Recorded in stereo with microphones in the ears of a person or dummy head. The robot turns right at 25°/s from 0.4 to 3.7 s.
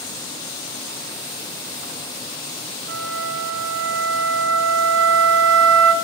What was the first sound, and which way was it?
A flute, 55° right (ahead or behind).